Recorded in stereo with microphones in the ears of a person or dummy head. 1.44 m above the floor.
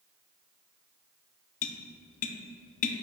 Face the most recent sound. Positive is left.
turn(degrees=40)  # may be behind; listen again after turning